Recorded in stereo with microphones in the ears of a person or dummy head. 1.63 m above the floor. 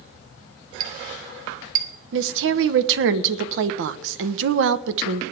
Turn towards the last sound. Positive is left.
turn(degrees=-60)  # may be behind; listen again after turning